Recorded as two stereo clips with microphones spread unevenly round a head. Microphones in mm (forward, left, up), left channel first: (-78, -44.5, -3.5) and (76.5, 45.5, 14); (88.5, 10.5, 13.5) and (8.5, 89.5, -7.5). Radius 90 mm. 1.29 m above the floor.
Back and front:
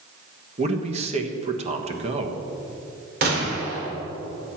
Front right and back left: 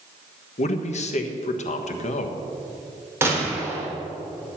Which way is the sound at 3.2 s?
65° left.